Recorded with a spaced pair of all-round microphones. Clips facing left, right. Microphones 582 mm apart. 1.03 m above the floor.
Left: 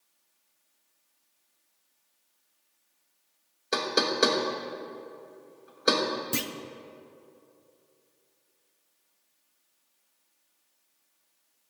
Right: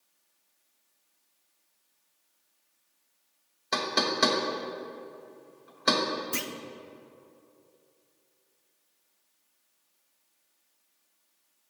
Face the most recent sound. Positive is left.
turn(degrees=60)  # may be behind; listen again after turning